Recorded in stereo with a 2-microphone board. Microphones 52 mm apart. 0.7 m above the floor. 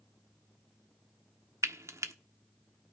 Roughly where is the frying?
Right.